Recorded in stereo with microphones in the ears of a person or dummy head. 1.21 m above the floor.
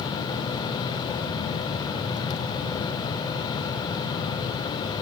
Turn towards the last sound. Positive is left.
No sound to turn to.